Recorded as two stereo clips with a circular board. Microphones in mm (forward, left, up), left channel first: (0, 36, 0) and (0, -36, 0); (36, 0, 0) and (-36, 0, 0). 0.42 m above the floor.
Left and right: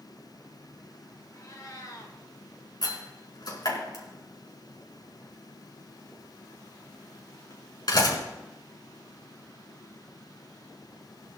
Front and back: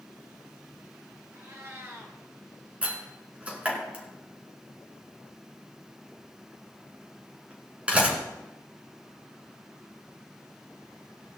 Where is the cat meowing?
125° left, 2.5 m.